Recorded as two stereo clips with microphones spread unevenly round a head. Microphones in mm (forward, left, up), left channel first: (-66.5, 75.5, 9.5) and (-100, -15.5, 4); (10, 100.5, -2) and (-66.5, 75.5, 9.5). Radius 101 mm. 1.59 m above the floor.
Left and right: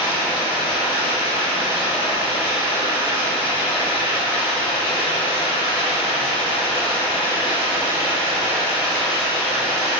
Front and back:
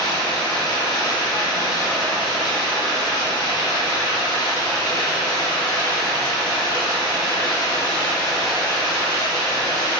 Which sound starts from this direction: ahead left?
Running water, at 0.0 s.